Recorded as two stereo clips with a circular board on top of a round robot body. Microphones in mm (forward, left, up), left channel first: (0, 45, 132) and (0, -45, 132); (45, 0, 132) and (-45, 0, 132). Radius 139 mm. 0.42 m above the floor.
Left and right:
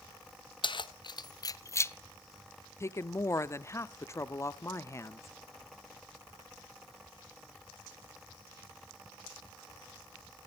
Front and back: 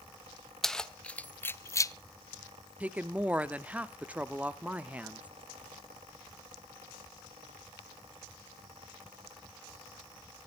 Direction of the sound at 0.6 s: 85° left.